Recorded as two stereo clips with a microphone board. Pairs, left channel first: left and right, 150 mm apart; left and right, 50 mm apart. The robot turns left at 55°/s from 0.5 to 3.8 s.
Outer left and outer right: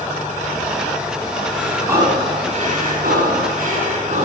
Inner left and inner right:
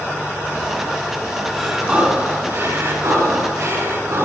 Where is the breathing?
Straight ahead, 6.5 m; by 4.2 s 125° right, 6.5 m.